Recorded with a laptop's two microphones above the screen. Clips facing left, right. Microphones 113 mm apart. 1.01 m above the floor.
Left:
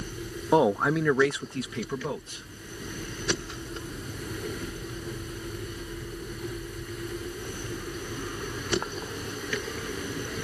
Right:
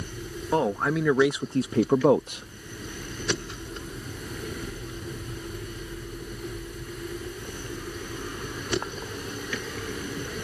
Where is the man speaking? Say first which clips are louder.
Left 3 dB; 20° left (ahead or behind); by 2.5 s 70° right (ahead or behind).